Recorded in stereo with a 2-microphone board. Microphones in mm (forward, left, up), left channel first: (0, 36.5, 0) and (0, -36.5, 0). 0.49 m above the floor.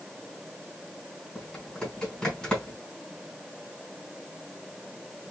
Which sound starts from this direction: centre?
Typing on a keyboard, at 1.4 s.